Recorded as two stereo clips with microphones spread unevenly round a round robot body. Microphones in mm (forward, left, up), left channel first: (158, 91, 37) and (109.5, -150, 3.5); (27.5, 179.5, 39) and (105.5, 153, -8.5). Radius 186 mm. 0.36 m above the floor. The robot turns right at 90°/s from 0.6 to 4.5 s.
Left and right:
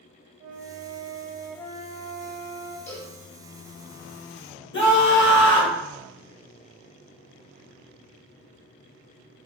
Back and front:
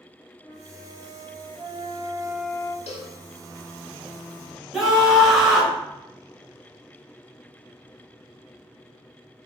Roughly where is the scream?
Ahead left.